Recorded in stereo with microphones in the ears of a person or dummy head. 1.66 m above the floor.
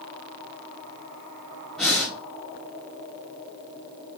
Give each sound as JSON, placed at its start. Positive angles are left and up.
{"t": 1.8, "sound": "breathing", "side_deg": 5, "distance_m": 0.9}